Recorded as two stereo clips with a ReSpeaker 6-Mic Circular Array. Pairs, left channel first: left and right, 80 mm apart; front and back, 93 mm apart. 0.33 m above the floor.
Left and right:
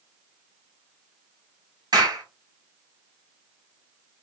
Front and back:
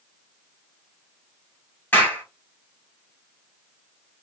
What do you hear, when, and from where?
1.9 s a clap: 65° right, 1.5 m